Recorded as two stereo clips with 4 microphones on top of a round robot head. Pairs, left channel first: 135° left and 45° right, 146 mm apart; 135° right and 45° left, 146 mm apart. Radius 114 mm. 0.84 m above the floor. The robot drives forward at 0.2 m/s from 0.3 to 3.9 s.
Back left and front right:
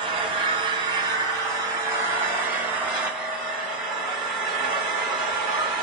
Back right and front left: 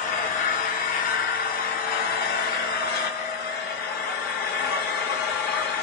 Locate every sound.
0.0 s an engine running: 100° right, 1.1 m; by 5.8 s 130° right, 1.5 m